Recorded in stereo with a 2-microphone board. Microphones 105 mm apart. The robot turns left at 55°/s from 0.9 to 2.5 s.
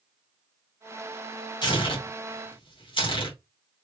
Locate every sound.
1.6 s tearing paper: 45° left (ahead or behind), 1.6 m; by 3.4 s 50° left (ahead or behind), 1.6 m